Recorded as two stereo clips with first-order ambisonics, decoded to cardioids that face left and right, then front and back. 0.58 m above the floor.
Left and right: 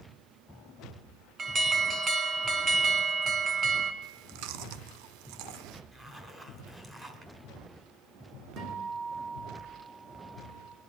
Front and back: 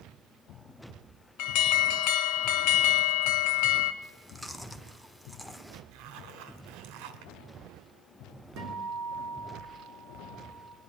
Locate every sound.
1.4 s an alarm: 20° right, 0.9 m
4.0 s chewing: 90° right, 0.6 m
5.9 s a zipper: 165° right, 1.5 m
8.6 s a guitar: 135° right, 4 m